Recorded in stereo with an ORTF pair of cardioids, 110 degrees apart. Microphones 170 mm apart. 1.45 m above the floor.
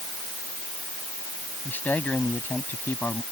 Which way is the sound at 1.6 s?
10° left.